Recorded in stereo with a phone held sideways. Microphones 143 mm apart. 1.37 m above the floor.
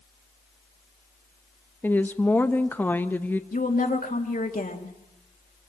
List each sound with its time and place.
1.8 s a woman speaking: 15° left (ahead or behind), 1.1 m
3.5 s a woman speaking: 75° left (ahead or behind), 2.5 m